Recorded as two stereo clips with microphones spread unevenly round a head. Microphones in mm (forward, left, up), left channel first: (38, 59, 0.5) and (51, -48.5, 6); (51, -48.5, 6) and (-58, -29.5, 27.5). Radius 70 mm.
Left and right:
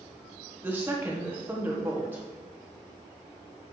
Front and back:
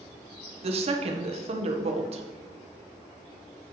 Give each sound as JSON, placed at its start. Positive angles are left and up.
{"t": 0.6, "sound": "a woman speaking", "azimuth_deg": -160, "distance_m": 1.1}